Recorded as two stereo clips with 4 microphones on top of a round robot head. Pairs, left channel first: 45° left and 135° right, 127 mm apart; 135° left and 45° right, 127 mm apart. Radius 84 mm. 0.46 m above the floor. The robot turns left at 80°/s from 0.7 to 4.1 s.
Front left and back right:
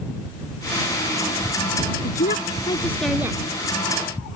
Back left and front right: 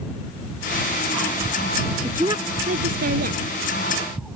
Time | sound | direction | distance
2.0 | a woman speaking | 40° left | ?